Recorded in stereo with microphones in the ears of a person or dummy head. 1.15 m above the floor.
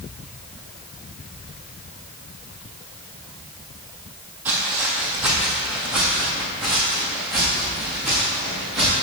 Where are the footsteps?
5° right (ahead or behind), 2 m; by 8.9 s centre (ahead or behind), 6 m.